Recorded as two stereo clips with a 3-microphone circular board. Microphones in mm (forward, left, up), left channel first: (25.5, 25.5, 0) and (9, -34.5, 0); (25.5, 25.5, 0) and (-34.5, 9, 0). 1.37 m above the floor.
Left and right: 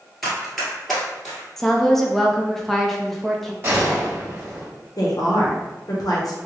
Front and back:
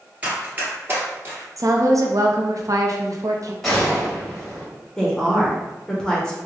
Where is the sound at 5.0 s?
95° left, 0.7 m.